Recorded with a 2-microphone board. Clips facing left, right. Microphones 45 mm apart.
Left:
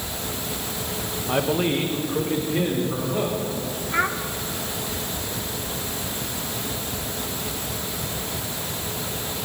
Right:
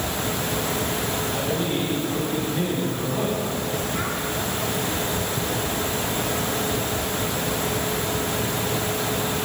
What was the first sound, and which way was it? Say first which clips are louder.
A man speaking: left 7 dB; 75° left (ahead or behind).